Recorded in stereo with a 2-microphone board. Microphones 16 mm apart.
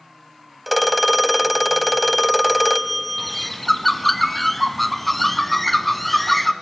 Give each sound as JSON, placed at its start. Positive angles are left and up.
{"t": 0.7, "sound": "a phone ringing", "side_deg": 0, "distance_m": 0.5}
{"t": 3.2, "sound": "a bird", "side_deg": 10, "distance_m": 0.9}